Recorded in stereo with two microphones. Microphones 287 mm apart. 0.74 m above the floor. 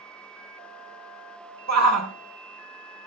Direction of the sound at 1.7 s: 65° right (ahead or behind).